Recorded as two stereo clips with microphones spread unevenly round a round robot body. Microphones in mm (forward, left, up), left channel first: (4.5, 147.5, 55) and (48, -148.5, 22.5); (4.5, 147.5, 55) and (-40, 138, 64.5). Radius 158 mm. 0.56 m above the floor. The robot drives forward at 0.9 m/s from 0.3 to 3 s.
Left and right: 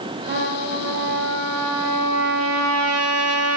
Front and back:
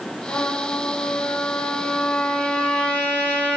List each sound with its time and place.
0.3 s a trumpet: 25° right, 2.5 m; by 3.6 s 110° right, 1.2 m